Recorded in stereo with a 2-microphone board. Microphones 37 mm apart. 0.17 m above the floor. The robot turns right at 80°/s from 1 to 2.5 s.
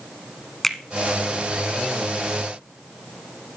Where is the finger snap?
10° left (ahead or behind), 1.2 m.